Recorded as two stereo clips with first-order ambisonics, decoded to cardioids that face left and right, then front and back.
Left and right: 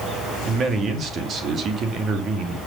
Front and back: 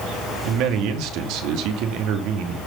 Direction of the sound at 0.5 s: 150° right.